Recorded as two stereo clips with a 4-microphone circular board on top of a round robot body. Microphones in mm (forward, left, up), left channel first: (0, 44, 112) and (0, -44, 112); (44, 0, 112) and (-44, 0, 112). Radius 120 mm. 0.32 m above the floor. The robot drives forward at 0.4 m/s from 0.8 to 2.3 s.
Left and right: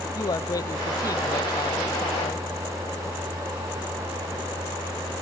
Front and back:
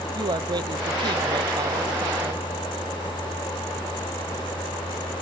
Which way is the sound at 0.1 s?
140° left.